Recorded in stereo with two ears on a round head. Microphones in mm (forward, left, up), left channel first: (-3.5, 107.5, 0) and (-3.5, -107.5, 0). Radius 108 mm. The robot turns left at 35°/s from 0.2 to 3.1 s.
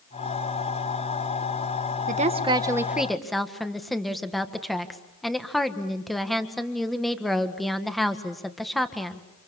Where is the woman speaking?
145° right, 1.6 m; by 9.2 s straight behind, 1.6 m.